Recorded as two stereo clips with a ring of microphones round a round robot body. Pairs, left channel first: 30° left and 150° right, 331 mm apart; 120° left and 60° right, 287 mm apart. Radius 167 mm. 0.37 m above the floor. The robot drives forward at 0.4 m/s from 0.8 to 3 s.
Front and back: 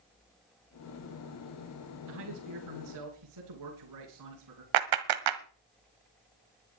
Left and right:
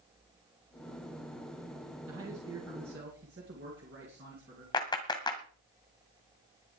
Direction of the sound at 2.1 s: 115° right.